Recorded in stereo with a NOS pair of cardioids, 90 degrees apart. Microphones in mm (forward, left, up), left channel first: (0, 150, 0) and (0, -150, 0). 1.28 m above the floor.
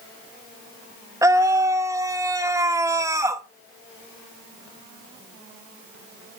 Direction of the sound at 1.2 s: 10° right.